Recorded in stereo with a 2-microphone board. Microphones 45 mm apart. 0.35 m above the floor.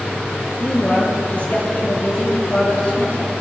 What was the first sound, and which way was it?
A woman speaking, 35° left (ahead or behind).